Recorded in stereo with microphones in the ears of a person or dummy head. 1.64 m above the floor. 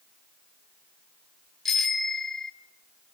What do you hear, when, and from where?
1.6 s a bicycle bell: 5° right (ahead or behind), 2.5 m